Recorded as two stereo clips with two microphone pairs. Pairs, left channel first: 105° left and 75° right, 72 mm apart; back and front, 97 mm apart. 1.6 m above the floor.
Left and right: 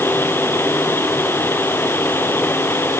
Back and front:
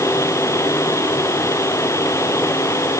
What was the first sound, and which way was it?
Only background noise.